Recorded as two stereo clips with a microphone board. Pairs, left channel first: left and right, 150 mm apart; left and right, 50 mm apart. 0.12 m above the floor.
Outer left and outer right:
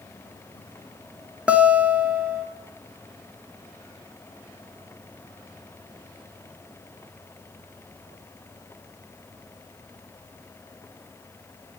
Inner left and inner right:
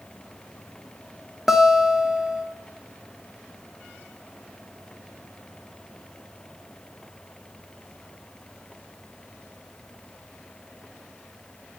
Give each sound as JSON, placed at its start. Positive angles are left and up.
{"t": 1.5, "sound": "a guitar", "side_deg": -10, "distance_m": 1.0}